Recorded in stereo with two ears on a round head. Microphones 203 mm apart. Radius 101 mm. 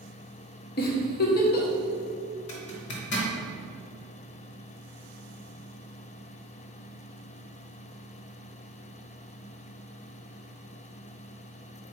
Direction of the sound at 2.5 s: 50° left (ahead or behind).